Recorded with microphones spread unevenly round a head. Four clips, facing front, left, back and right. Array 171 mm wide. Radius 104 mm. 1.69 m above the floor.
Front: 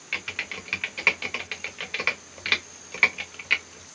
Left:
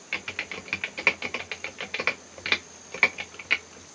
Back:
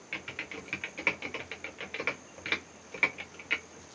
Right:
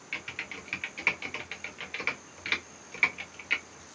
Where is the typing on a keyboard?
90° left, 0.8 m.